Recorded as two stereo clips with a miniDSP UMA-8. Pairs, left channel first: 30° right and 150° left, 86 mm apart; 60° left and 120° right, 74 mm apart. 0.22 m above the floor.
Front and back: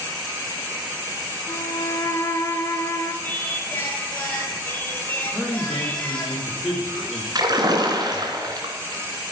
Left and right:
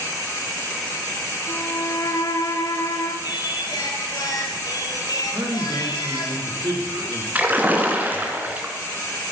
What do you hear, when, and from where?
1.5 s a violin: 25° left, 1.6 m
3.2 s singing: 35° left, 2.5 m
5.3 s a man speaking: 115° right, 8.5 m
7.3 s a splash: 175° left, 3 m